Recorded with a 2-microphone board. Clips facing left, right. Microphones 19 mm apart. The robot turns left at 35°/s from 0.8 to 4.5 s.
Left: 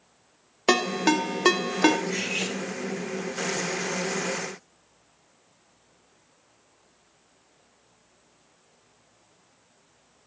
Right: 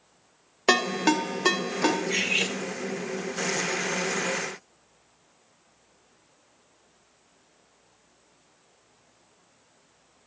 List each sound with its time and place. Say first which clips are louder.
0.7 s a ringtone: even; centre (ahead or behind), 0.5 m; by 2.0 s 30° left (ahead or behind), 0.5 m
2.1 s cutlery clinking: right 3 dB; 45° right (ahead or behind), 1.1 m; by 2.5 s 35° right (ahead or behind), 1.1 m